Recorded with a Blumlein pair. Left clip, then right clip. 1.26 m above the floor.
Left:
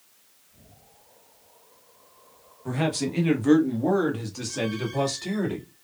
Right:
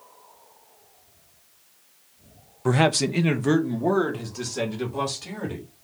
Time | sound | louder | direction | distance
2.6 | a man speaking | right 7 dB | 35° right | 0.5 m